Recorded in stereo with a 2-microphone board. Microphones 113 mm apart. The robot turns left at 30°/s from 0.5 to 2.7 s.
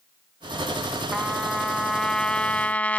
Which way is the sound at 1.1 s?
5° right (ahead or behind).